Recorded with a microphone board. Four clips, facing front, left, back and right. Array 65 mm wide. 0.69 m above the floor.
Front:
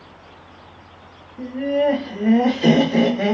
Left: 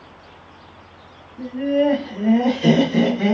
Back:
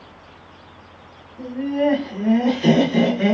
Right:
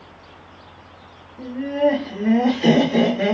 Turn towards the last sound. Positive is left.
turn(degrees=-40)